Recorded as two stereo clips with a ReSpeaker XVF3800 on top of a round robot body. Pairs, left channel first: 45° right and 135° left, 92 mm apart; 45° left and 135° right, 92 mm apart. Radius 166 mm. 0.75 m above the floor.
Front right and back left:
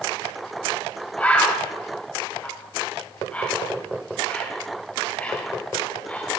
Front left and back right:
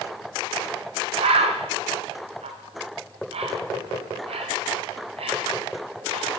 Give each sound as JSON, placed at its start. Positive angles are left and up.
{"t": 1.2, "sound": "a bird", "azimuth_deg": -120, "distance_m": 0.9}